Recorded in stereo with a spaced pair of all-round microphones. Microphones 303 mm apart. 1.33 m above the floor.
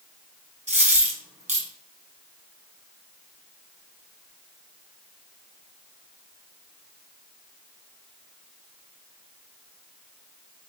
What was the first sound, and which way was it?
A dropped coin, 25° right (ahead or behind).